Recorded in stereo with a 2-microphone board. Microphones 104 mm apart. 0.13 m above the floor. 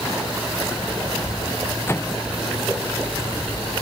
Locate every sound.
1.9 s a microwave: 25° left (ahead or behind)